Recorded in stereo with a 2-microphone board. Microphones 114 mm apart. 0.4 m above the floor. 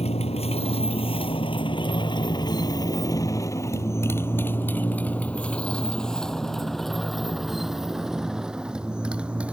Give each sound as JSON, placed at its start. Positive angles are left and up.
{"t": 0.0, "sound": "a motorcycle", "side_deg": 65}